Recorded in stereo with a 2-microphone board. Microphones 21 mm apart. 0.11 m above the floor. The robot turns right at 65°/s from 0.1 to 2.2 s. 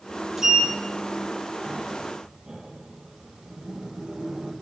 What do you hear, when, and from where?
0.4 s a sliding door: 15° right (ahead or behind), 3 m; by 4.5 s 35° right (ahead or behind), 3 m